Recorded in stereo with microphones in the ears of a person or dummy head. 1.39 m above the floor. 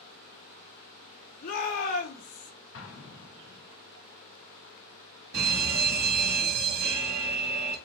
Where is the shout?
45° left (ahead or behind), 3 m.